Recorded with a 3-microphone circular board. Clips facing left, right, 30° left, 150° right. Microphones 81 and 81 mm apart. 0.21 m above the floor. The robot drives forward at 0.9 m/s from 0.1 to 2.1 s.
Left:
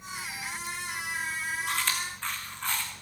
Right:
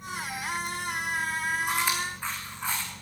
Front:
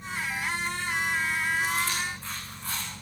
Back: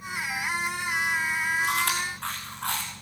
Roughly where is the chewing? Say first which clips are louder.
Right 4 dB, back 2 dB; behind.